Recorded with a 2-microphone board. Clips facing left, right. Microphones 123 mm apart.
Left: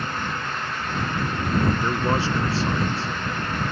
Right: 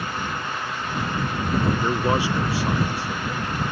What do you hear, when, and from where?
1.8 s a man speaking: 10° right (ahead or behind)